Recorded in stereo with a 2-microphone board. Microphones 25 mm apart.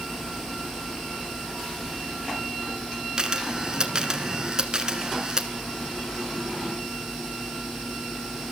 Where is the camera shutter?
30° right (ahead or behind), 1.3 m.